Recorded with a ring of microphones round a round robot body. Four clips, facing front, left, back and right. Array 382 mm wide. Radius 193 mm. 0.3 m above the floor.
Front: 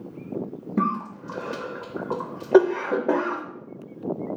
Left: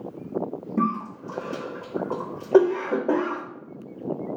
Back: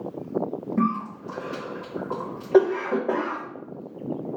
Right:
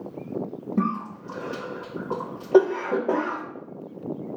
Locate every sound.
0.8 s a cough: 10° left, 0.9 m